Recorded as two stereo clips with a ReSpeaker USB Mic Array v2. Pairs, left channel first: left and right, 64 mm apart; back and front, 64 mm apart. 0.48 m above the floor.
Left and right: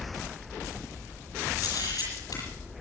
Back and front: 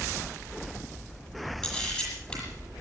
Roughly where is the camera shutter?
Left.